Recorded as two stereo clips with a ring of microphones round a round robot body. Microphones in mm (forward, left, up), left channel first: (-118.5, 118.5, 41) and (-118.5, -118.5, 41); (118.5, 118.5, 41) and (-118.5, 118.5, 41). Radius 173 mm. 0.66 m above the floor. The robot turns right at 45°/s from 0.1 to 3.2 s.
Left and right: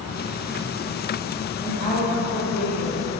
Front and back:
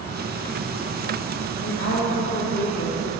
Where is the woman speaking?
10° right, 1.6 m; by 3.1 s 55° left, 1.6 m.